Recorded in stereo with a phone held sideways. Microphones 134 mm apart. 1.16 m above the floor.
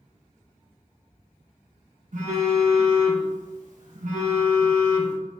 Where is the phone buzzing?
70° right (ahead or behind), 1.1 m.